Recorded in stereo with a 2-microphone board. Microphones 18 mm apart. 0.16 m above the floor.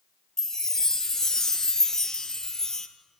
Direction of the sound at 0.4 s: 35° left (ahead or behind).